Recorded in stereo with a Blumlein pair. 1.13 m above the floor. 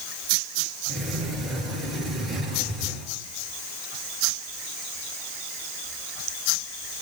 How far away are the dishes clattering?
I don't hear dishes clattering.